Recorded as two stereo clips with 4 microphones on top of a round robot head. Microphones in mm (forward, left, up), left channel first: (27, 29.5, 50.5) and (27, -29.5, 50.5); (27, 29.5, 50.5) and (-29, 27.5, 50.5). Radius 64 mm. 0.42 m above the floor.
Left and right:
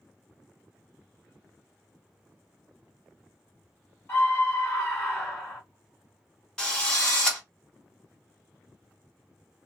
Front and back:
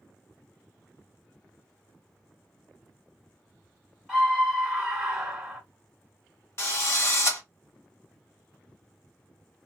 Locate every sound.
4.1 s a scream: 105° left, 1.5 m
6.6 s a drill: 20° left, 1.4 m